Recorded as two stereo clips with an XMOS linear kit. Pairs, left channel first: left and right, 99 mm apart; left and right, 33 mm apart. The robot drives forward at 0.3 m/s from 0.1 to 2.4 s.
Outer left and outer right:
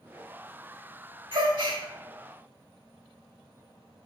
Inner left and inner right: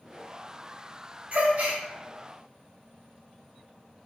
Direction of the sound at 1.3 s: 50° right (ahead or behind).